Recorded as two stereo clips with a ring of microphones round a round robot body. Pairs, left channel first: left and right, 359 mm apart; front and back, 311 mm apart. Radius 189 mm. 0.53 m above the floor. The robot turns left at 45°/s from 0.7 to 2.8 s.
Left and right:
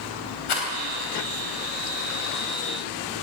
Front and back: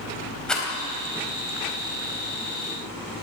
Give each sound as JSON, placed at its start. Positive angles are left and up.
{"t": 0.5, "sound": "a rattle", "azimuth_deg": 90, "distance_m": 4.0}